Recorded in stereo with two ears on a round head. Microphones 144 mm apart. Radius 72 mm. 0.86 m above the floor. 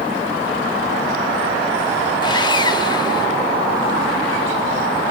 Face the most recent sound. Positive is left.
turn(degrees=25)  # may be behind; listen again after turning